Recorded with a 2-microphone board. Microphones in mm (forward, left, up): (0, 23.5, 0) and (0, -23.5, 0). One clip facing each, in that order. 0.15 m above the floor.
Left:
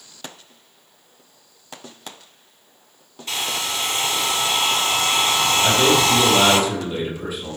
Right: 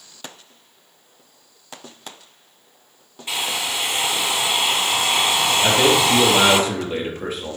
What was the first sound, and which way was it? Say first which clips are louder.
A hair dryer: right 1 dB; 15° right (ahead or behind).